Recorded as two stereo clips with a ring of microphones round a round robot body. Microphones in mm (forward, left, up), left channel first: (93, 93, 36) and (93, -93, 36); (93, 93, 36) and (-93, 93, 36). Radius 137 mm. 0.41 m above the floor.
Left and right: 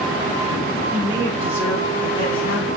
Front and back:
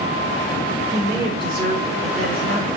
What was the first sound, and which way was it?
A woman speaking, 160° right.